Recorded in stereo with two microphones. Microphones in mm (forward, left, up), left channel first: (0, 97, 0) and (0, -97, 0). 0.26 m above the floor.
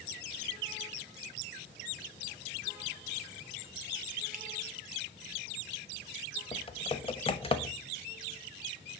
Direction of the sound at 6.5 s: 30° left (ahead or behind).